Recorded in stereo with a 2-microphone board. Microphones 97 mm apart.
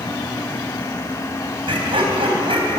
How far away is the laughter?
About 3.5 m.